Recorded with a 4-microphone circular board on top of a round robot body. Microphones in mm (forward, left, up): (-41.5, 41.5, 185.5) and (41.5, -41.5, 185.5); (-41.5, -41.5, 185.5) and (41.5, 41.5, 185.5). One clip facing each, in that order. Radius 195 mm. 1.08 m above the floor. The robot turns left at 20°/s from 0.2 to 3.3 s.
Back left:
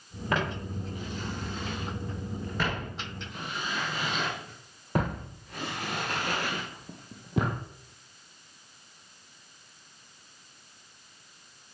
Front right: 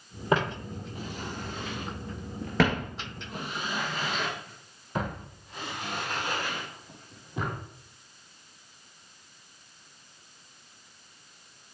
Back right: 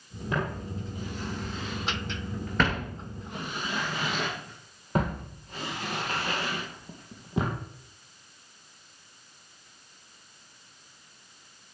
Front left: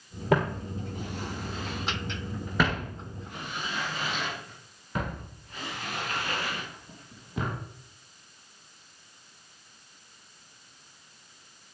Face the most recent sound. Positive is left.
turn(degrees=160)